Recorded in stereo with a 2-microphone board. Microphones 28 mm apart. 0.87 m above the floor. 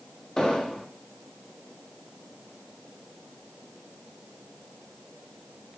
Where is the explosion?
25° left (ahead or behind), 0.6 m.